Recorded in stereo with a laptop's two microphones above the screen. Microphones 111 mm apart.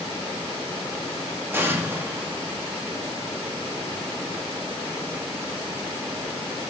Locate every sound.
1.5 s an explosion: 20° right (ahead or behind), 1.8 m